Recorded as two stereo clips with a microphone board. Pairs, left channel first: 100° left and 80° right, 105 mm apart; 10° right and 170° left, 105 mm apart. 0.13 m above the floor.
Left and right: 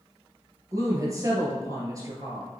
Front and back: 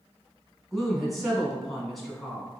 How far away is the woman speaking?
About 1.4 m.